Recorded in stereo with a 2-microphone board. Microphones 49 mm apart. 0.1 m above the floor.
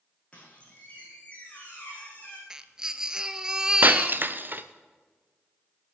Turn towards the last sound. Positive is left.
turn(degrees=-45)  # may be behind; listen again after turning